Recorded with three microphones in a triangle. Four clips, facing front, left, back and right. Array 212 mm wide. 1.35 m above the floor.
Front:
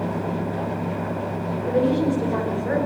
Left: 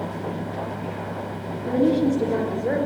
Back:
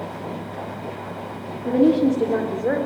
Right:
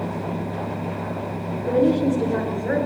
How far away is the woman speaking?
About 3.5 m.